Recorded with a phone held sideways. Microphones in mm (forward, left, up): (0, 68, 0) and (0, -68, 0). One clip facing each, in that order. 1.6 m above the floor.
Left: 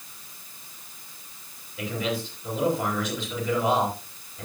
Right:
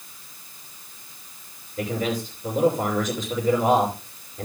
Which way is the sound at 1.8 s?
45° right (ahead or behind).